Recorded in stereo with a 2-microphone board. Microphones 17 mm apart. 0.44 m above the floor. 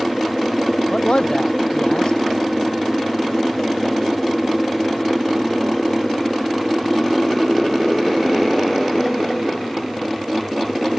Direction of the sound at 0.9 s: 60° left (ahead or behind).